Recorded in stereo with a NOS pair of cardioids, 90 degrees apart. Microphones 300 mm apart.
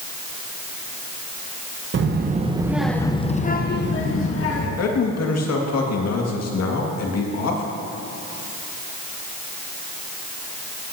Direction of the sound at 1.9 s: 40° right.